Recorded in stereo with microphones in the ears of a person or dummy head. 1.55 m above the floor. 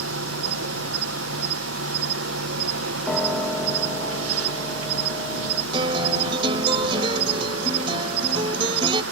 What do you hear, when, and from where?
0.0 s an insect: 80° right
3.1 s a piano: centre (ahead or behind)
5.7 s a guitar: 30° right (ahead or behind)